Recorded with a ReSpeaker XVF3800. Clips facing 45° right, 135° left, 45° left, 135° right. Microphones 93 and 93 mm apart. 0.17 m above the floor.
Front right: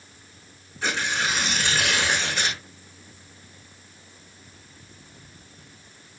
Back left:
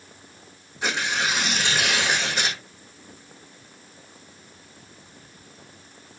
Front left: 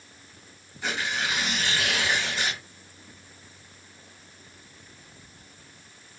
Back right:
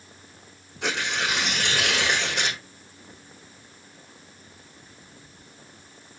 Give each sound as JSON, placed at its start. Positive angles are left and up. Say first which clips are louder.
{"t": 0.8, "sound": "tearing paper", "louder": "back left 1 dB, back right 2 dB", "azimuth_deg": -150, "distance_m": 5.0}